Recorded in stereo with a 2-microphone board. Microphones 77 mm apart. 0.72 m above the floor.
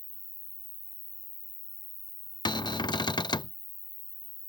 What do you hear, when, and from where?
0.0 s an insect: 15° right (ahead or behind)
2.5 s a cupboard door: 70° left (ahead or behind)